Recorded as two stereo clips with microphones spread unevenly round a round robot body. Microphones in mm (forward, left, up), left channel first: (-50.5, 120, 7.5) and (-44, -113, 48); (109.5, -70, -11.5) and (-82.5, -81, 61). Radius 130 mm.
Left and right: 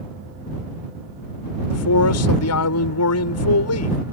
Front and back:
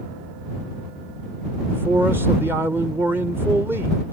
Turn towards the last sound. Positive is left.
turn(degrees=100)